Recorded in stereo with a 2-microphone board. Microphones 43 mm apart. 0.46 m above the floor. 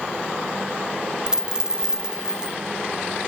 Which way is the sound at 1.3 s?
15° right (ahead or behind).